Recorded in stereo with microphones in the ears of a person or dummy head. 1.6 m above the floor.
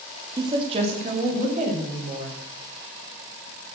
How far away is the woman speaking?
About 2 m.